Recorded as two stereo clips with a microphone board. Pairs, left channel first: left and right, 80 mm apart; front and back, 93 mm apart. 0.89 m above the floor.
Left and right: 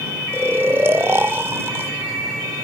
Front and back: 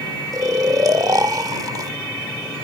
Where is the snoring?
140° right.